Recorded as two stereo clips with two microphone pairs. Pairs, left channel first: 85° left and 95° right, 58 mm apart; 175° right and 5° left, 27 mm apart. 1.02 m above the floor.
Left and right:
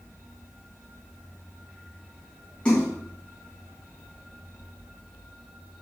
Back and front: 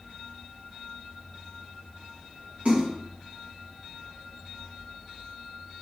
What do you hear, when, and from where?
2.6 s a splash: 15° left, 2.0 m